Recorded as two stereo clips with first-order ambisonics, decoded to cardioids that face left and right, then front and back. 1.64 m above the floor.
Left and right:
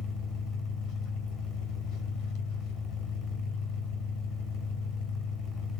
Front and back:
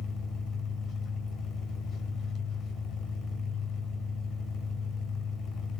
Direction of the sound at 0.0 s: 55° left.